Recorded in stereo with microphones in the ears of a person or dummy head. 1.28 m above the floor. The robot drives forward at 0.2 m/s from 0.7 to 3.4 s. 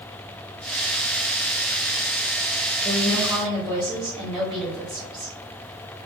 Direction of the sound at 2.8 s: 5° left (ahead or behind).